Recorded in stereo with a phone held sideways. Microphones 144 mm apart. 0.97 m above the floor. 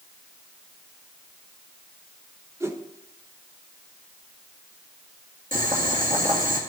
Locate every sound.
2.6 s a whoosh: 20° right (ahead or behind), 1.0 m
5.5 s boiling: 65° right (ahead or behind), 2 m